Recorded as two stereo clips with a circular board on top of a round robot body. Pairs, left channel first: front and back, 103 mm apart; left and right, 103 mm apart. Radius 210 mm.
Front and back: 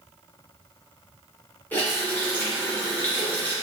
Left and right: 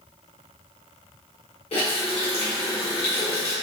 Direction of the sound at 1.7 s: 75° left.